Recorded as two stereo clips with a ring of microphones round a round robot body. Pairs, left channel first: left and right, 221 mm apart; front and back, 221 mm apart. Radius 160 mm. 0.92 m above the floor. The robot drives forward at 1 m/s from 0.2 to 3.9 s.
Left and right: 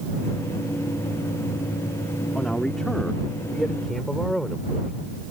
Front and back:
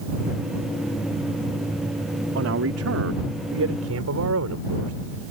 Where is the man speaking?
Straight behind.